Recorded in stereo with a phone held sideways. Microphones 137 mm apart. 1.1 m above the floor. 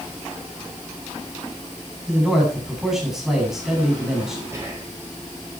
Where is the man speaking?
5° right (ahead or behind), 9 m.